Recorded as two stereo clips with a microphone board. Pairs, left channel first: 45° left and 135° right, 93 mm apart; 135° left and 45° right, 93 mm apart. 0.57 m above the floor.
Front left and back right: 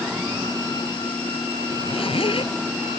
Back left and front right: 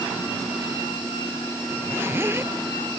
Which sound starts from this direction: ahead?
A zipper, at 1.7 s.